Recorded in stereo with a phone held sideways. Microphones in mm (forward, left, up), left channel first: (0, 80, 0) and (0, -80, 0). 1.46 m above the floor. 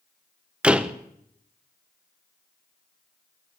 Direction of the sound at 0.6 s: 5° right (ahead or behind).